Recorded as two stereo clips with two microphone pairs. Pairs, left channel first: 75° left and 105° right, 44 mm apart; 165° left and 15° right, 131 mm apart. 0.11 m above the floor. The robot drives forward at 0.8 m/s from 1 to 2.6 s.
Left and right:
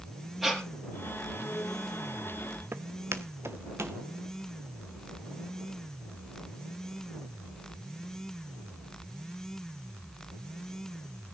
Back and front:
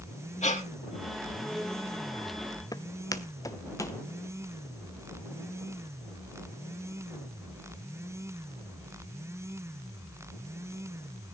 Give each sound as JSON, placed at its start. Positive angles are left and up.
{"t": 0.4, "sound": "breathing", "azimuth_deg": 165, "distance_m": 2.5}
{"t": 2.7, "sound": "footsteps", "azimuth_deg": -135, "distance_m": 0.7}